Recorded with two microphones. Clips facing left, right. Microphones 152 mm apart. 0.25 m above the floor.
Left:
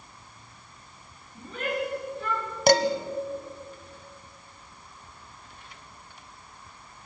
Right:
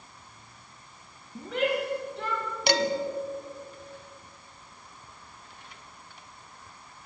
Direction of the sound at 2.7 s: 45° left (ahead or behind).